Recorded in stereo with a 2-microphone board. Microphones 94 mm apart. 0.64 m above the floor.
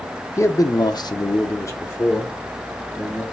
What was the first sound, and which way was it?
A man speaking, 35° left (ahead or behind).